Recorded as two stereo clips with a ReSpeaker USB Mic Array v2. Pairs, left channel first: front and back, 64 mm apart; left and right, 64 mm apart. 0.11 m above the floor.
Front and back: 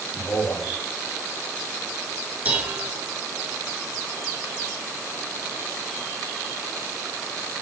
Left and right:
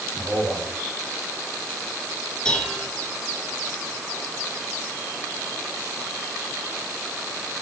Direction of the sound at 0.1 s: 15° right.